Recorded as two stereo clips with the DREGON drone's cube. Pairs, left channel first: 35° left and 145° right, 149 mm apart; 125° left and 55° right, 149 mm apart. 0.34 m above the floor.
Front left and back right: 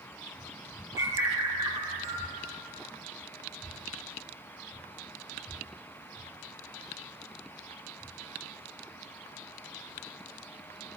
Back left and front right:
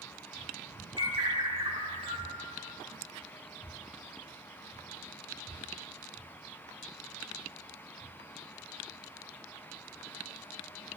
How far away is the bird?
About 0.9 m.